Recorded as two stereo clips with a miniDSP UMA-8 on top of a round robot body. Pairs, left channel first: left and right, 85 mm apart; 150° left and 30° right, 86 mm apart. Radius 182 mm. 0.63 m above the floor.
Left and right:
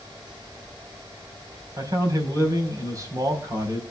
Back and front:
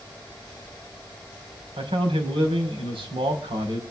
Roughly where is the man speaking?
Ahead right.